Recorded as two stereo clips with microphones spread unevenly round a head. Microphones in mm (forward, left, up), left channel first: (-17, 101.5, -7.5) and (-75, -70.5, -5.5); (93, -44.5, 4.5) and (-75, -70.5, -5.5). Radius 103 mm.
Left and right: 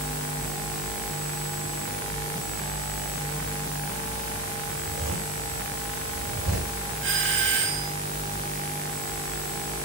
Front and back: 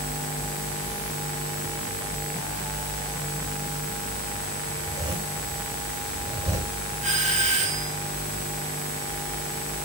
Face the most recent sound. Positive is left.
turn(degrees=-125)